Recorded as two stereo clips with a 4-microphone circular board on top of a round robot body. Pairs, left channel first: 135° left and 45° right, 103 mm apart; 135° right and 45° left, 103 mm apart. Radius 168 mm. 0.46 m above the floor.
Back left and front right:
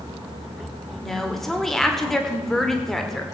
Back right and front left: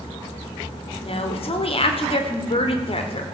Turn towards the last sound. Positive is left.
turn(degrees=-135)